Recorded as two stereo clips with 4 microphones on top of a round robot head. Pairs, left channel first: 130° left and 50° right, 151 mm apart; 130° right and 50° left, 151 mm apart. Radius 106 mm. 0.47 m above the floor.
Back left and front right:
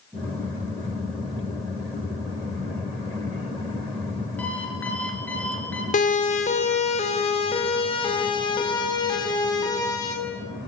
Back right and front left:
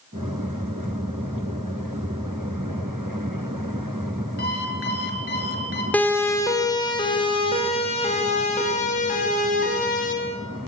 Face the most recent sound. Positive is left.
turn(degrees=-165)